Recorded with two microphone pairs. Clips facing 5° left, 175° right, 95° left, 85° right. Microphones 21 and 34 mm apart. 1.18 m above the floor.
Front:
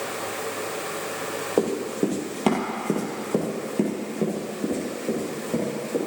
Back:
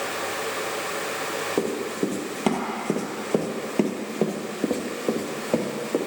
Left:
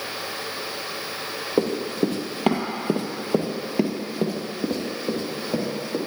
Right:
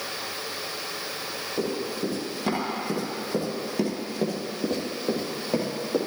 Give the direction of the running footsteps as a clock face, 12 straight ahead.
9 o'clock.